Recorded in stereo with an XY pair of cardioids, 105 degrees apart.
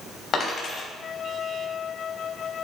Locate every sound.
0.3 s a dropped coin: 40° left, 3 m